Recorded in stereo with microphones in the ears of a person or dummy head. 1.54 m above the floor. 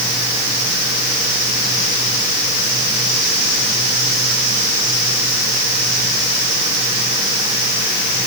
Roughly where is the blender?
I don't hear a blender.